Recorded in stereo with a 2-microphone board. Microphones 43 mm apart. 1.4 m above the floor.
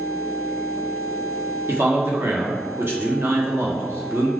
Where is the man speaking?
70° right (ahead or behind), 1.0 m.